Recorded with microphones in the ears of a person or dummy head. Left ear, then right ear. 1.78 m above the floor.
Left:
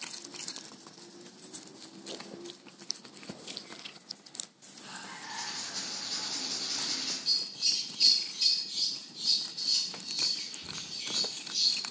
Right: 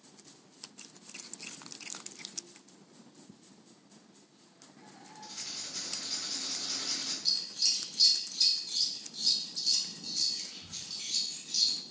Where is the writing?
35° right (ahead or behind), 1.9 m.